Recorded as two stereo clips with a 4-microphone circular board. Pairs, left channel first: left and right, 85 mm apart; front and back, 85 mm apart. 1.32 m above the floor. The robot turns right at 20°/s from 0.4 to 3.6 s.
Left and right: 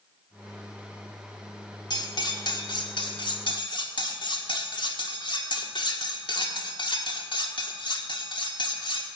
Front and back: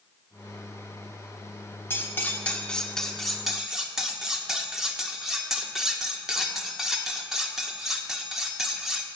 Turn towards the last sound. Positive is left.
turn(degrees=95)